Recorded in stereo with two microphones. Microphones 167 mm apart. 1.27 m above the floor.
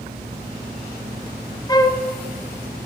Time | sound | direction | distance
1.7 | a flute | 25° left (ahead or behind) | 0.5 m